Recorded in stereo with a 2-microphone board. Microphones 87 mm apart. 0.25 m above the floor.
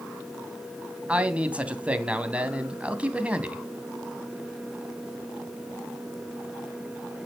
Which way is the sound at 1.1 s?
15° right (ahead or behind).